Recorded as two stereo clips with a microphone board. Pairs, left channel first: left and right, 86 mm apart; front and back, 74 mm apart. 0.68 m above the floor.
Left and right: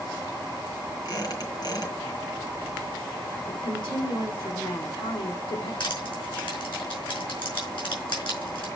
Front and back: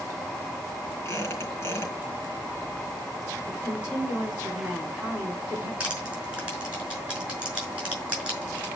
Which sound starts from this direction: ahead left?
A squeak, at 1.1 s.